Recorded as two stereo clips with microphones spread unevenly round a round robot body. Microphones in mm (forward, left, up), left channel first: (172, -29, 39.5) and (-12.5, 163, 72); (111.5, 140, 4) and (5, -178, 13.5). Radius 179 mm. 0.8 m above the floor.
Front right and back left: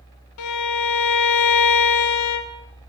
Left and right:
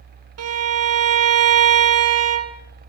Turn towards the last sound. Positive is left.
turn(degrees=-60)